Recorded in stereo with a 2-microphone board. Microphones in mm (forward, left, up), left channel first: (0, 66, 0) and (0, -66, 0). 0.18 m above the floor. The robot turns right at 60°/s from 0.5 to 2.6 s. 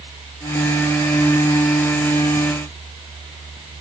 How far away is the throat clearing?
I don't hear throat clearing.